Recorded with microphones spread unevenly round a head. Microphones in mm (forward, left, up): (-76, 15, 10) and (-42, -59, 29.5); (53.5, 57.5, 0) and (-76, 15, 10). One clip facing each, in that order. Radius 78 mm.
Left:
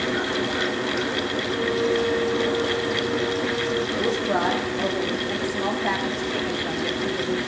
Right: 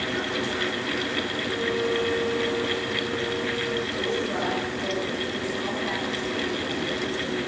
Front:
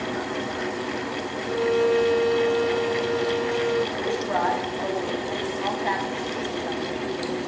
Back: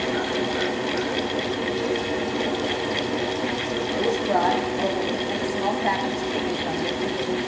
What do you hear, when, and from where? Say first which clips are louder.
1.5 s a violin: left 3 dB, front 4 dB; 30° left, 0.9 m
4.0 s a woman speaking: left 4 dB, back 3 dB; 145° left, 7.5 m